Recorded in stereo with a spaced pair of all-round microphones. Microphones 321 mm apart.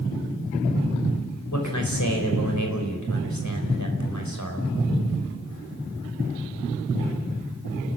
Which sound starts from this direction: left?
A man speaking, at 1.5 s.